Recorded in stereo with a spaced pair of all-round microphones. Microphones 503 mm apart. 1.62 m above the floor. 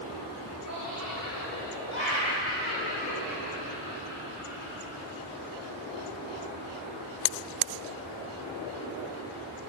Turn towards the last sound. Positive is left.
turn(degrees=-5)  # may be behind; listen again after turning